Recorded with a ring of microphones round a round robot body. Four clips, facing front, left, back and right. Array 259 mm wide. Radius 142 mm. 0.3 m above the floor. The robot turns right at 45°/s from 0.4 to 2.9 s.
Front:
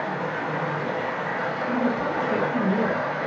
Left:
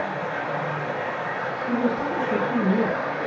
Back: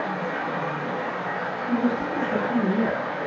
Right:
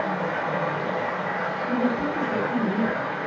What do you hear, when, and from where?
0.0 s running water: 80° right, 1.8 m; by 3.3 s 30° left, 1.8 m
1.7 s a woman speaking: 40° left, 2 m; by 3.0 s 95° left, 2 m